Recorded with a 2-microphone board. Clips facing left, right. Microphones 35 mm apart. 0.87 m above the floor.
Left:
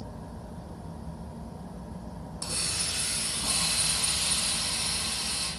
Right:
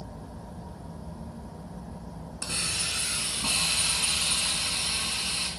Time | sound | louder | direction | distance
2.4 | a hiss | right 3 dB | 60° right (ahead or behind) | 2.5 m